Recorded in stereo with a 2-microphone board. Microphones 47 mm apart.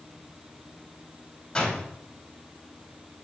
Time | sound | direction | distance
1.6 | a door slam | 20° left (ahead or behind) | 4.5 m